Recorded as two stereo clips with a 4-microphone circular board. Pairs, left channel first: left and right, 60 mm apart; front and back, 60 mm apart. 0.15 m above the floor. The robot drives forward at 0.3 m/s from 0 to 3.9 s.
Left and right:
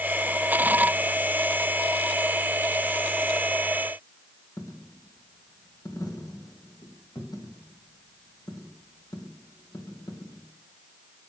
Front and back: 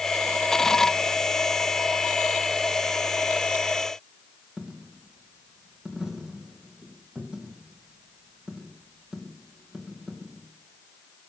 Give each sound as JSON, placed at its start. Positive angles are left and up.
{"t": 4.6, "sound": "a dropped coin", "azimuth_deg": 100, "distance_m": 3.0}